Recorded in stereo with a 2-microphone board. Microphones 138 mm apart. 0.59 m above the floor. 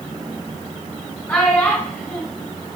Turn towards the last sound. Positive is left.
turn(degrees=10)  # may be behind; listen again after turning